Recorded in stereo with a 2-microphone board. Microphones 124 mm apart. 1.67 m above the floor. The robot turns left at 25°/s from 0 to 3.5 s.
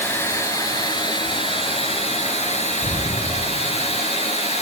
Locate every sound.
0.0 s running water: 160° left, 3 m; by 4.6 s 75° left, 3 m
2.8 s an explosion: 35° left (ahead or behind), 0.6 m; by 4.0 s 40° left (ahead or behind), 0.6 m